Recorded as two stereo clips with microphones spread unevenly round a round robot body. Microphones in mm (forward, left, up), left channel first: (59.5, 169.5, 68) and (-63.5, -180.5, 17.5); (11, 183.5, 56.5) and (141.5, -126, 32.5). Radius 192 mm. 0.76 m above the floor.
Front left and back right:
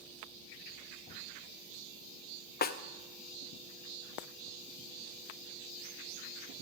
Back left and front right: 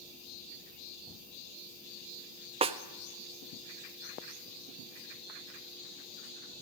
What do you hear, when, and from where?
2.6 s a snare drum: straight ahead, 0.5 m